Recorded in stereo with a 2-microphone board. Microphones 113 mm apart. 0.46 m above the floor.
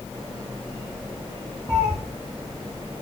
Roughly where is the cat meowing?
Right.